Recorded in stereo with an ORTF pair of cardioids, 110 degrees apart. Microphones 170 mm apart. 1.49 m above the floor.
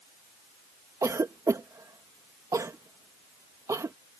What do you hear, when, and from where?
1.0 s a cough: 15° right